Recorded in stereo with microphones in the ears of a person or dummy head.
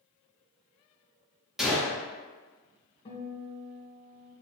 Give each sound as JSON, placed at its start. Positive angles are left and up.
{"t": 1.6, "sound": "a gunshot", "side_deg": 0, "distance_m": 1.2}
{"t": 3.0, "sound": "a guitar", "side_deg": 30, "distance_m": 1.8}